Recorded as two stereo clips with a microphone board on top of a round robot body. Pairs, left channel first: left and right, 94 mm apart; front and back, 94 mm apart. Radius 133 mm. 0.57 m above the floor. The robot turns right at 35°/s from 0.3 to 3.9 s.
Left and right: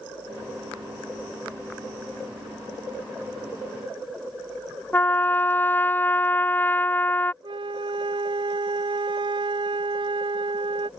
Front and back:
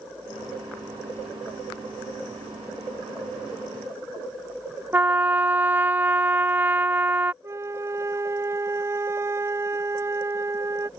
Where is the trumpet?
135° left.